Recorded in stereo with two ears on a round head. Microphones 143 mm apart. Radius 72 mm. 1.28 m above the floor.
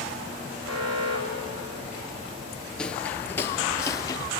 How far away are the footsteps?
About 1.4 m.